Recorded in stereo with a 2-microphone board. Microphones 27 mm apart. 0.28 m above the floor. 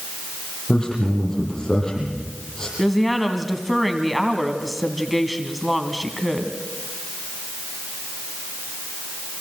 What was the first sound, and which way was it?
A man speaking, 20° left (ahead or behind).